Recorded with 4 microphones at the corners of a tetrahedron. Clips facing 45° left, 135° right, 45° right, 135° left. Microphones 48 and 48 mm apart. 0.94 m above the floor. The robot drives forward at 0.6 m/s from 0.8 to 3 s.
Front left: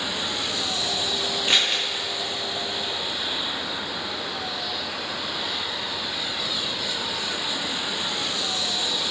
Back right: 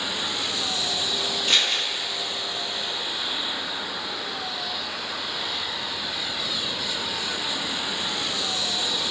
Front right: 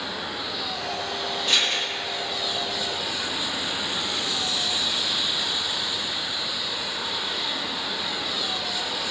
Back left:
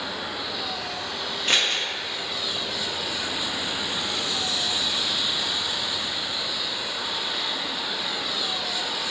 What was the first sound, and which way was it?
Scissors, 110° left.